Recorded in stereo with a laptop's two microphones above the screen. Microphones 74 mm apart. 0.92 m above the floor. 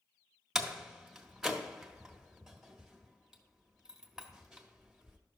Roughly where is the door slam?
Centre.